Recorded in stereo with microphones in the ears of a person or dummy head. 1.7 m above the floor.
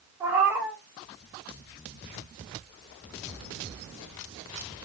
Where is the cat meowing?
15° right (ahead or behind), 1.2 m.